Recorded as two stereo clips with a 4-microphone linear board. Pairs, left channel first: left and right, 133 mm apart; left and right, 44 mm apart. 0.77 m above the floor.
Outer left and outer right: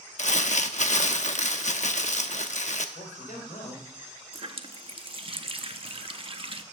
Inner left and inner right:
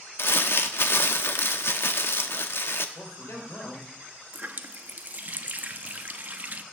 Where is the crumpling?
65° left (ahead or behind), 0.7 m.